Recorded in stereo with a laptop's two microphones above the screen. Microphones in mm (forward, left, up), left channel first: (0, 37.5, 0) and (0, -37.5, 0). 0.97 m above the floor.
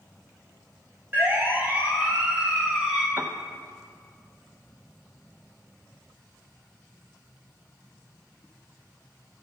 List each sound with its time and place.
1.1 s a siren: 30° right (ahead or behind), 3.5 m; by 3.1 s 10° right (ahead or behind), 5 m
3.2 s a piano: 30° right (ahead or behind), 1.0 m